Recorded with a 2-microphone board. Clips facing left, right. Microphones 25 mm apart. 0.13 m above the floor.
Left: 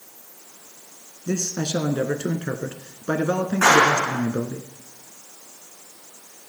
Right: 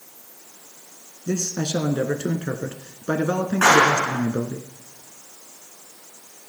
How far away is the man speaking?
About 1.2 m.